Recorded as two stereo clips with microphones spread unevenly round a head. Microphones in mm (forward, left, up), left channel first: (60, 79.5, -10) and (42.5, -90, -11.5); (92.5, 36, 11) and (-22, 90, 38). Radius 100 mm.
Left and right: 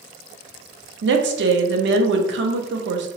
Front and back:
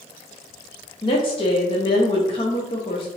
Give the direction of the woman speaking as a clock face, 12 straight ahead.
3 o'clock.